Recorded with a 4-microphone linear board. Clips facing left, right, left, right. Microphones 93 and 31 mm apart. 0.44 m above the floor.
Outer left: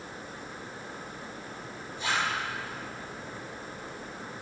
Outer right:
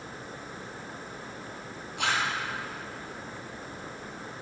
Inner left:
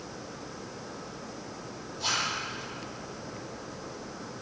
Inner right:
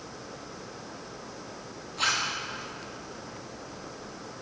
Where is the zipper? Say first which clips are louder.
Outer right 1 dB, inner right 3 dB; 75° right (ahead or behind), 6 m.